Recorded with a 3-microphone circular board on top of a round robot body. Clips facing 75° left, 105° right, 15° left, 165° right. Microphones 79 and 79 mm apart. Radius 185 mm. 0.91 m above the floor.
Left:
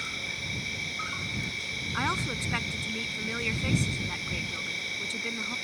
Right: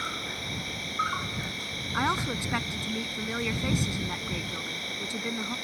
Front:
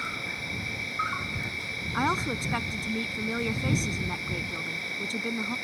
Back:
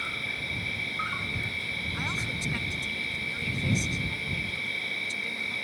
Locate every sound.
0.0 s an insect: 55° right
1.9 s a woman speaking: 30° right